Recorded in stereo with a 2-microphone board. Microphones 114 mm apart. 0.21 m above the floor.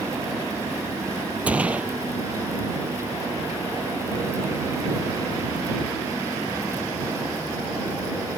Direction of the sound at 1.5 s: 10° right (ahead or behind).